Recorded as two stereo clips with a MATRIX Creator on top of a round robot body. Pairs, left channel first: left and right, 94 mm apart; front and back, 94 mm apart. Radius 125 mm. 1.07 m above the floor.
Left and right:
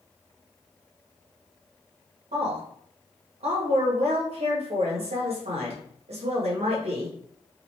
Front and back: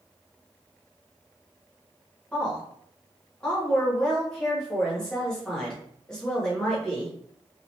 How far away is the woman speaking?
About 1.5 m.